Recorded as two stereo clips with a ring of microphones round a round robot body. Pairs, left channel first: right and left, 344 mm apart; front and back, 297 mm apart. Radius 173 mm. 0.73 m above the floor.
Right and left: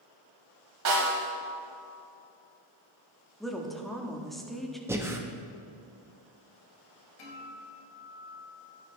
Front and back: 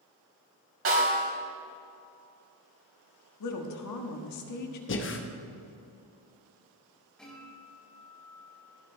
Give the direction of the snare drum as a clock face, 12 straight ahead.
7 o'clock.